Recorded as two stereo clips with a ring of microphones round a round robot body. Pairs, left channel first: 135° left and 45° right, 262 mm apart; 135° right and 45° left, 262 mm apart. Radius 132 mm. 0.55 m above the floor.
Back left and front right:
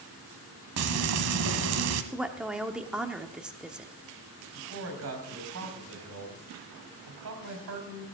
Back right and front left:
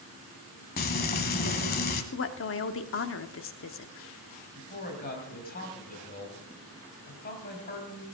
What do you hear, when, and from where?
0.8 s frying: 80° right, 1.1 m
2.1 s a woman speaking: 130° right, 1.0 m
4.5 s a man speaking: 80° right, 3 m